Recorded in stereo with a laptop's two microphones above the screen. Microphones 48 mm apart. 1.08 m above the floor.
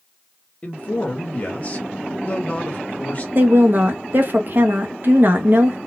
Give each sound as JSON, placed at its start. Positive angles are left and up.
{"t": 0.6, "sound": "a man speaking", "side_deg": 30, "distance_m": 1.5}
{"t": 3.4, "sound": "a woman speaking", "side_deg": -45, "distance_m": 0.8}